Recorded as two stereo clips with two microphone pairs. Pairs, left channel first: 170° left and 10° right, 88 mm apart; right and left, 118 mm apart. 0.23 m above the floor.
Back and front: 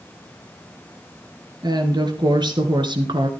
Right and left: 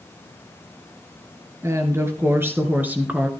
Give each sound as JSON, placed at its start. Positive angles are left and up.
{"t": 1.6, "sound": "a woman speaking", "azimuth_deg": 25, "distance_m": 4.0}